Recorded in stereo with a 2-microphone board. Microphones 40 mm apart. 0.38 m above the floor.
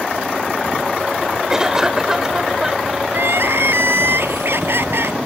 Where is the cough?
15° right (ahead or behind).